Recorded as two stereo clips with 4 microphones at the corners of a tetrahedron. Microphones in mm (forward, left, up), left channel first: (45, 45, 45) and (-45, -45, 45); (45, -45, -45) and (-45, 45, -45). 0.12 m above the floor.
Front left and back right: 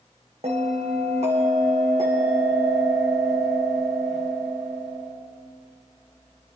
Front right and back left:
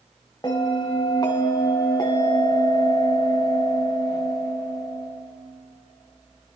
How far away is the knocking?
I don't hear knocking.